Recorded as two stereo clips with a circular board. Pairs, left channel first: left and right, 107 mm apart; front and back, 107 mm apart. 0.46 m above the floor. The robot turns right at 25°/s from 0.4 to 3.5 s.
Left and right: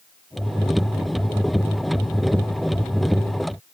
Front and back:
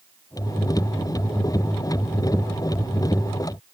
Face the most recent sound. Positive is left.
No sound to turn to.